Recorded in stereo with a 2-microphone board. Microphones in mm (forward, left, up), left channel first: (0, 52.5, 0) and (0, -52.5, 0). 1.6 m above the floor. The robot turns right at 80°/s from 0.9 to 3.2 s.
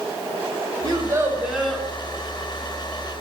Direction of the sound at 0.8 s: 60° right.